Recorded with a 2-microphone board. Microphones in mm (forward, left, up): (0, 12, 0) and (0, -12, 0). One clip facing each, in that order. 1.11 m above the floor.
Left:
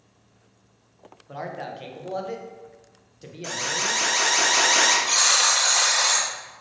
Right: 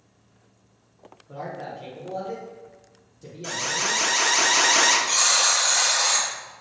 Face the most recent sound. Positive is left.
turn(degrees=50)  # may be behind; listen again after turning